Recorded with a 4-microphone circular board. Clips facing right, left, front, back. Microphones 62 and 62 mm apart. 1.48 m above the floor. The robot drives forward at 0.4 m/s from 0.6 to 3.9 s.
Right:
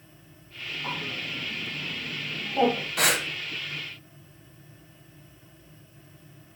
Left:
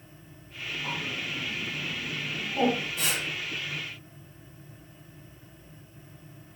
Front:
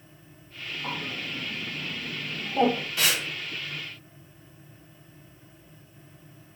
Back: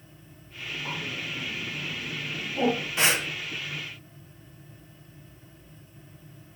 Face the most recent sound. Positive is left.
turn(degrees=-130)